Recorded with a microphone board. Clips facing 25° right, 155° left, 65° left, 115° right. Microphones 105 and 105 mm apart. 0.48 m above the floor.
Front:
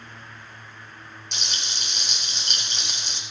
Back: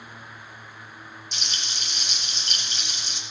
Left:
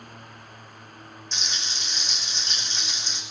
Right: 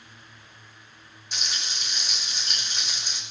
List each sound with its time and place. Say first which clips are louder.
1.3 s frying: front 2 dB, right 1 dB; 35° right, 5 m